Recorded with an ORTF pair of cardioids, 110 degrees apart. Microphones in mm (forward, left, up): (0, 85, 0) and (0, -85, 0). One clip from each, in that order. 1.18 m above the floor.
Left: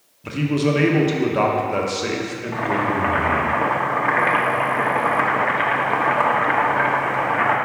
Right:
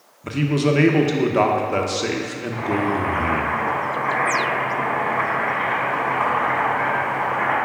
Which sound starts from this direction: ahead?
A man speaking, at 0.2 s.